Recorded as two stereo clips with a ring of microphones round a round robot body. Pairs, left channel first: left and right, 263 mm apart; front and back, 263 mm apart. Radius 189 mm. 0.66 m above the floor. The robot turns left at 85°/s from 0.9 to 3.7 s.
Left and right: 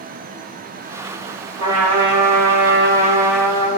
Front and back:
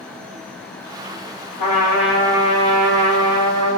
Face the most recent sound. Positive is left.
turn(degrees=150)